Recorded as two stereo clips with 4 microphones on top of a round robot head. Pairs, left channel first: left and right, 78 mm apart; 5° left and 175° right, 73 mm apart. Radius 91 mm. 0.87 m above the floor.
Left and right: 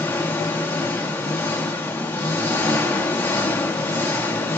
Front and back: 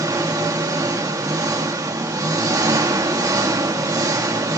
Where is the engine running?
150° left, 2 m.